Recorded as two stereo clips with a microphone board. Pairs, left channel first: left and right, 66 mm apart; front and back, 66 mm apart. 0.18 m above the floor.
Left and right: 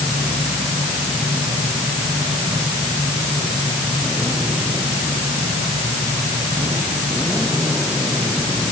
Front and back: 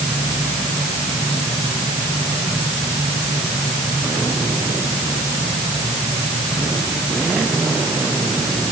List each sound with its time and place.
Only background noise.